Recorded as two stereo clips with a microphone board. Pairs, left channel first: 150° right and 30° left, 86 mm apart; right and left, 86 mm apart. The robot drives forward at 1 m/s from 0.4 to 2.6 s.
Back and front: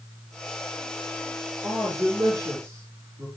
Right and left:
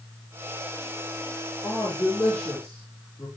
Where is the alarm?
I don't hear an alarm.